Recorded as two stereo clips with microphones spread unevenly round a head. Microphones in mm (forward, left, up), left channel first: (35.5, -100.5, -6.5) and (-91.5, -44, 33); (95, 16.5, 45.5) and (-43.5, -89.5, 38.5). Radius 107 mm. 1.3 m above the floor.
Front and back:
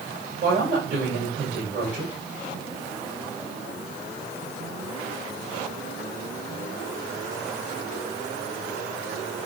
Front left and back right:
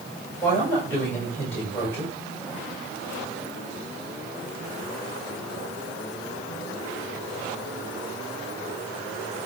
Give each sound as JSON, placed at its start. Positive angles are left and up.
{"t": 0.4, "sound": "a woman speaking", "azimuth_deg": 120, "distance_m": 6.5}